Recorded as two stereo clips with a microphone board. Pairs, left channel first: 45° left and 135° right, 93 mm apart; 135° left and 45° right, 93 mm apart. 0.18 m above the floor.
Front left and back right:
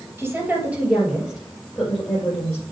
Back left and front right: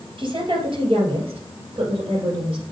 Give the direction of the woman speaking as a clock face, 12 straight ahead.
2 o'clock.